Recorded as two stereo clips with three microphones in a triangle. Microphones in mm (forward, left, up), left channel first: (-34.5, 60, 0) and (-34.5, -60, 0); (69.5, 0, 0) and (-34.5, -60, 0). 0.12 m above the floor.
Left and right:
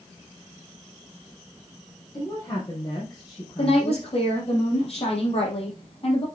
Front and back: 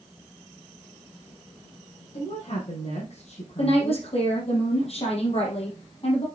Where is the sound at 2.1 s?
40° left, 3.5 m.